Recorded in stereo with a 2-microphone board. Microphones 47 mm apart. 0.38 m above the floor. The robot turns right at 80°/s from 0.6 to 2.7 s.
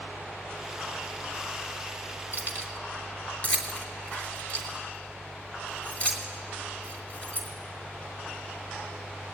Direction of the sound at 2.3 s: 50° left (ahead or behind).